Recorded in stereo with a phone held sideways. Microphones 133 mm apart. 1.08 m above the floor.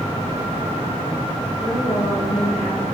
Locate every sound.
1.6 s a woman speaking: 80° left, 4 m